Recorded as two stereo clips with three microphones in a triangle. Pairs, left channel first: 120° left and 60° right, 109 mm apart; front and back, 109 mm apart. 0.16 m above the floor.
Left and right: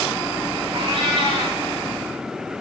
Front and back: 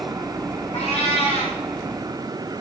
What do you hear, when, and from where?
0.7 s a cat meowing: 15° right, 6 m